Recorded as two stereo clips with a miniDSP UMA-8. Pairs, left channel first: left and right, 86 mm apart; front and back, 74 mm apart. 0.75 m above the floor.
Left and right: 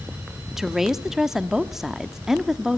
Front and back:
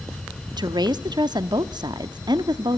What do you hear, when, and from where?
0.6 s a woman speaking: 175° right, 1.1 m